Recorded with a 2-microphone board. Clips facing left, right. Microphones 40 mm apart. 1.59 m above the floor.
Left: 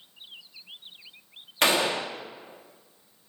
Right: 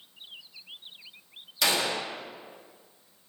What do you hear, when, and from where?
1.6 s a gunshot: 45° left (ahead or behind), 1.5 m